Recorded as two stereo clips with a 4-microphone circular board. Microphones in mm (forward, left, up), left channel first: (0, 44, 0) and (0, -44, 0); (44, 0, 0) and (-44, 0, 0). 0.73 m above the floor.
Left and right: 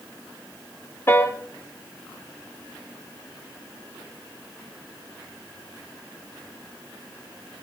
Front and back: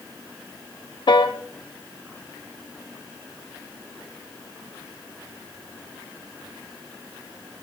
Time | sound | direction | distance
1.1 | a piano | 25° left | 0.7 m